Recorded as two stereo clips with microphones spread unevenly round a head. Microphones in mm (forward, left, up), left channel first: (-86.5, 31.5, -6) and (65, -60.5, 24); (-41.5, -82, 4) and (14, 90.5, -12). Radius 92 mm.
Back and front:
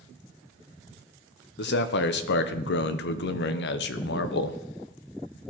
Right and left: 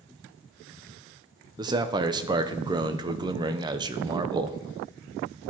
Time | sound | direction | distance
1.6 | a man speaking | 135° left | 0.6 m